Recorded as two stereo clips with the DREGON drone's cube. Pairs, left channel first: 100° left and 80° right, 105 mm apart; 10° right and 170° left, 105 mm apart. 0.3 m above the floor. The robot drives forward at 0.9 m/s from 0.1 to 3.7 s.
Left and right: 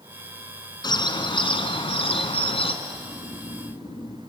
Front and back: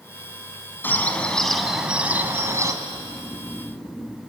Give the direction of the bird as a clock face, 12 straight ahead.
10 o'clock.